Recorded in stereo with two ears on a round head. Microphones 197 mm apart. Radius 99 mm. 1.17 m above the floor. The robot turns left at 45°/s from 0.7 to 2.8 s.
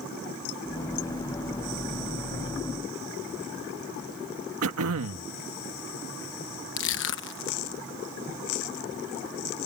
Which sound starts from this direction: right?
Throat clearing, at 4.6 s.